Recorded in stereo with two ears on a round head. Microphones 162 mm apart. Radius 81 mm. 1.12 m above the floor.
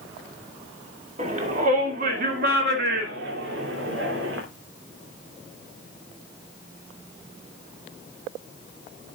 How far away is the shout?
About 2.5 m.